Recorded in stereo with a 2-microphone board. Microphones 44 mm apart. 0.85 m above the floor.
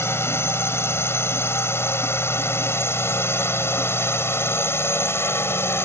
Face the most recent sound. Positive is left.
turn(degrees=65)  # may be behind; listen again after turning